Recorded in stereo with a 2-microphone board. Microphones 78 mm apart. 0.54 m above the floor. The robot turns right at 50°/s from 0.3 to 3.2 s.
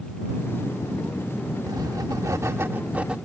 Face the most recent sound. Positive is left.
turn(degrees=-10)